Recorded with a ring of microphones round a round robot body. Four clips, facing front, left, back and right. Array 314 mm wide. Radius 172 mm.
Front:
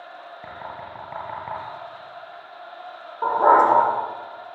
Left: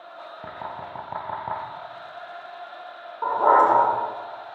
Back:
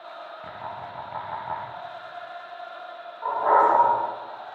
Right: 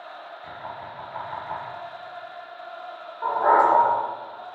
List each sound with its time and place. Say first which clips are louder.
0.4 s knocking: left 3 dB, front 1 dB; 80° left, 8.5 m
3.2 s a dog barking: left 1 dB, front 4 dB; 20° left, 8.5 m